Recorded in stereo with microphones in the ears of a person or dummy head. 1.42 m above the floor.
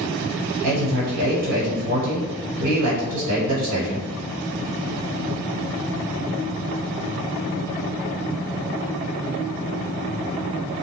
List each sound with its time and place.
0.6 s a man speaking: 70° right (ahead or behind), 1.4 m